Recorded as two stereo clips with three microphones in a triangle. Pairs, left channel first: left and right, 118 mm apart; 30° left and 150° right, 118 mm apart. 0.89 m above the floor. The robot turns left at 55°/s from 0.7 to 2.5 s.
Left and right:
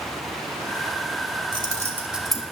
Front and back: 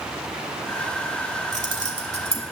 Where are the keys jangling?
140° right, 1.8 m; by 2.4 s 170° left, 1.8 m.